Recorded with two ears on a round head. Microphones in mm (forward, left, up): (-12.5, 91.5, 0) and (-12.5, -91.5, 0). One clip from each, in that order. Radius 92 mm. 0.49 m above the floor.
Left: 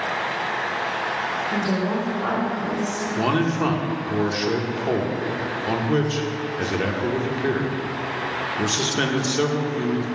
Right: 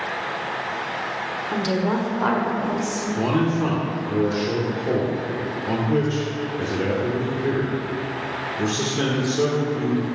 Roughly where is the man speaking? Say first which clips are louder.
Left 1 dB; left.